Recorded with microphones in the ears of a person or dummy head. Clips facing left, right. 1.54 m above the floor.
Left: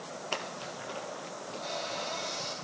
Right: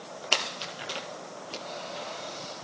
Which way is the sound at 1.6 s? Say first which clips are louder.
Left 3 dB; 80° left.